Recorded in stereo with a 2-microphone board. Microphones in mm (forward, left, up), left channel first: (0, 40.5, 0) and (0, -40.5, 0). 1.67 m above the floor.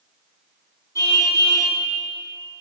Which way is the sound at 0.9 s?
40° left (ahead or behind).